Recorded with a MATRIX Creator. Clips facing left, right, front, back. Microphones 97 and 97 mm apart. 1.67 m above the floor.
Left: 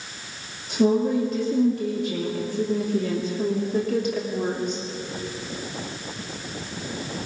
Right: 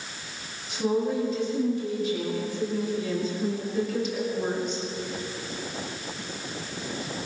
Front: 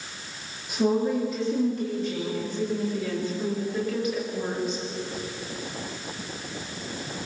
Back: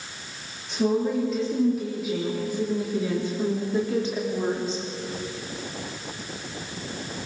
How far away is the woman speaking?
About 4 m.